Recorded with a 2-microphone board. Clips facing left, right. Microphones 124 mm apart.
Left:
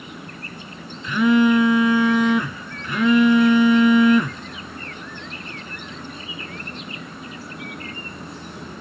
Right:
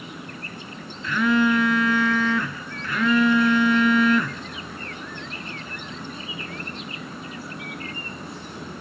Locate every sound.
1.0 s a phone buzzing: 15° left (ahead or behind), 0.8 m